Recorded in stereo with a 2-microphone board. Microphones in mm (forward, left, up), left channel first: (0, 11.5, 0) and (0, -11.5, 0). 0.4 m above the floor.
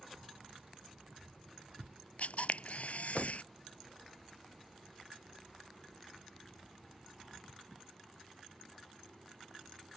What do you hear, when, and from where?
0.1 s keys jangling: 70° right (ahead or behind); by 2.0 s 85° right
2.2 s a camera shutter: 75° left (ahead or behind)